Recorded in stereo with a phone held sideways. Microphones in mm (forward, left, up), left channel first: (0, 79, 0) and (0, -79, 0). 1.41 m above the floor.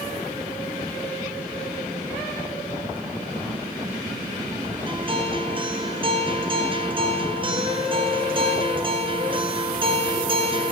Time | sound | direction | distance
4.9 | a guitar | 35° right (ahead or behind) | 0.5 m